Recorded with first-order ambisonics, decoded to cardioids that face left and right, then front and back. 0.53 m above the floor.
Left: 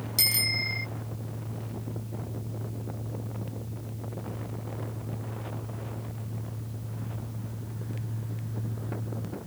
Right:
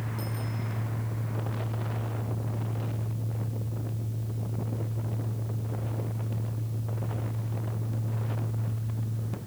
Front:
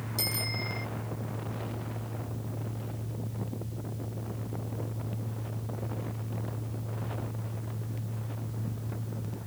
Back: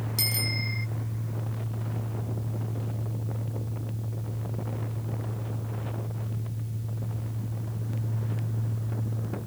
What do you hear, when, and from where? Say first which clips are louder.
0.2 s a bicycle bell: left 13 dB, back 3 dB; 105° left